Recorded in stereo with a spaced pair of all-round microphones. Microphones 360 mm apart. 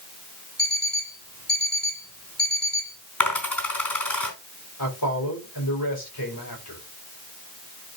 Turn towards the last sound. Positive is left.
turn(degrees=80)